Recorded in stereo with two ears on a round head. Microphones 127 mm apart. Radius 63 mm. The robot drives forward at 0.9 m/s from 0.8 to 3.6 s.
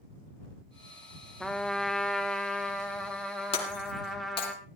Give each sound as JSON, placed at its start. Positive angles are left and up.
{"t": 1.4, "sound": "a trumpet", "side_deg": 5, "distance_m": 0.7}
{"t": 3.5, "sound": "breaking glass", "side_deg": 45, "distance_m": 3.0}